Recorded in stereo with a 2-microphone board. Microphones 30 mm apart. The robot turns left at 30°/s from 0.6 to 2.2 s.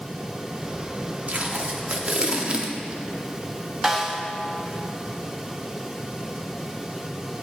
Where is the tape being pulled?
50° right (ahead or behind), 0.7 m; by 3.0 s 35° right (ahead or behind), 0.7 m.